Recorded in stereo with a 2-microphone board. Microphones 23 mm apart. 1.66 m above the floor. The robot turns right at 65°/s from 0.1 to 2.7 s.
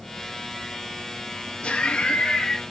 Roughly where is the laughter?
Left.